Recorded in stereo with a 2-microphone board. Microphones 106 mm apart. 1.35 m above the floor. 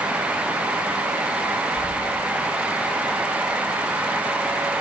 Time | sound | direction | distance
1.8 | keys jangling | 85° left | 5.5 m